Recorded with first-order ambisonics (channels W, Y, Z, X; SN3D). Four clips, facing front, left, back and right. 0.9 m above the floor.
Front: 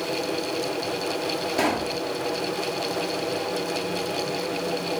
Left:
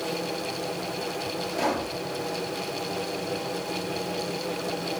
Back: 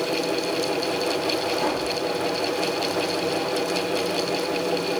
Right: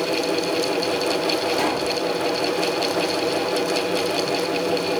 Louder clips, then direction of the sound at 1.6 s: Right 5 dB, even; 20° right.